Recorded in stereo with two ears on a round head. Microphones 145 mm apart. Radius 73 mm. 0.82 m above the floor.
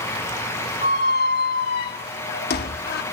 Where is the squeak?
65° left (ahead or behind), 0.9 m.